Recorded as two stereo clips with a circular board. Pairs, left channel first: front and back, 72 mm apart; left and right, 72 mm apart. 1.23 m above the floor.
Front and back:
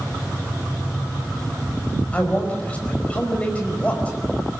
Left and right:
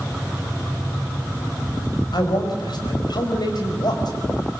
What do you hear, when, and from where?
2.1 s a man speaking: 70° left, 5 m